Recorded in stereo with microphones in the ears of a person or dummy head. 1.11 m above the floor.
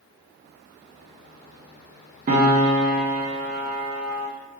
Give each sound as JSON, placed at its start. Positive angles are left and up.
{"t": 2.3, "sound": "a piano", "side_deg": -45, "distance_m": 1.4}